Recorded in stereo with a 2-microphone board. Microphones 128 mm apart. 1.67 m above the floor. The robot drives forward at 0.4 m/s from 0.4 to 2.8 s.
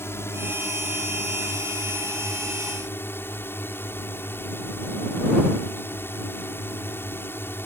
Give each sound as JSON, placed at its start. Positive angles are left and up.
{"t": 0.0, "sound": "a drone", "side_deg": 20}